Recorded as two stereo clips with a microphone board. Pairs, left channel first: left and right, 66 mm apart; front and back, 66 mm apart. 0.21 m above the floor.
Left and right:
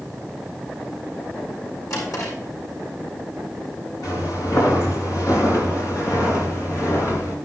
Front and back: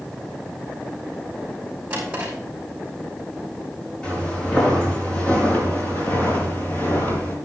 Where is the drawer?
110° left, 5 m.